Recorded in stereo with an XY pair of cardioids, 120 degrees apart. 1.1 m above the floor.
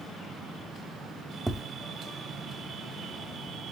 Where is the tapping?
10° right, 1.1 m.